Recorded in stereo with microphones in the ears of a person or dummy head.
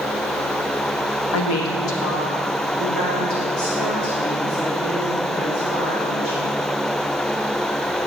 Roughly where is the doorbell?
I don't hear a doorbell.